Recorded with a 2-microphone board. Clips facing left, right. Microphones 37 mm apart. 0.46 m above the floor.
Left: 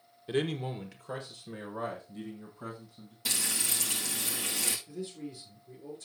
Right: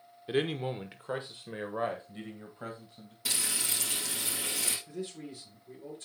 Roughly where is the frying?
Centre.